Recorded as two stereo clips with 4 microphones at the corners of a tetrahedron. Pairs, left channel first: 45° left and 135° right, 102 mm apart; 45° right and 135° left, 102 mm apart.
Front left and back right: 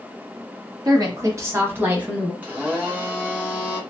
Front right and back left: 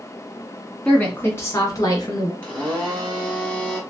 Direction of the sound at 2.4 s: 95° right.